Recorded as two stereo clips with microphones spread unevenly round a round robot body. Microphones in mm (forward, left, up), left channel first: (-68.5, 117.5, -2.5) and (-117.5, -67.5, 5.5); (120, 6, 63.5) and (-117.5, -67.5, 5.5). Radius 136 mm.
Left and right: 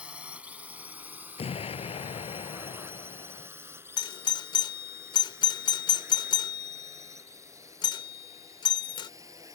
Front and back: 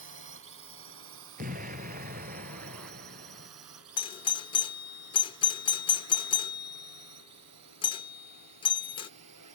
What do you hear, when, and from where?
0.0 s a drone: 170° left; by 9.6 s straight behind
1.4 s an explosion: 135° left
4.0 s a doorbell: 95° left